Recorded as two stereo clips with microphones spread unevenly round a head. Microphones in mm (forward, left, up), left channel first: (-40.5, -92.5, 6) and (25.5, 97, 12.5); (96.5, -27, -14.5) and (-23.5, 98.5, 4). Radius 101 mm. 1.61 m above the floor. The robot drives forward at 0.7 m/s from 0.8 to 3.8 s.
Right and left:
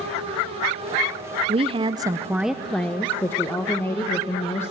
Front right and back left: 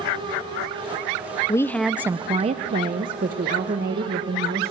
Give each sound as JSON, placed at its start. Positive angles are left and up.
{"t": 1.5, "sound": "a woman speaking", "azimuth_deg": 25, "distance_m": 0.6}